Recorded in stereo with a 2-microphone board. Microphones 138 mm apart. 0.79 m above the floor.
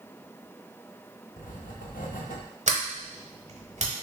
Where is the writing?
80° left, 0.7 m.